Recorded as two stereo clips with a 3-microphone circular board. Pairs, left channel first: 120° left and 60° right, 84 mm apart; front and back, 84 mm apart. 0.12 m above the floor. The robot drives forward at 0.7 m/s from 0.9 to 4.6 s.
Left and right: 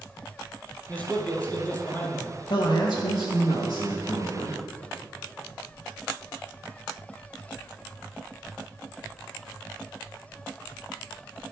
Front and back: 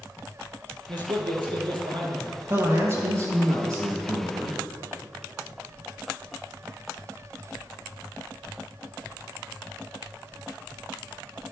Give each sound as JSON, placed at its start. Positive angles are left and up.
{"t": 0.9, "sound": "a man speaking", "azimuth_deg": -170, "distance_m": 2.5}
{"t": 2.5, "sound": "a man speaking", "azimuth_deg": 125, "distance_m": 3.0}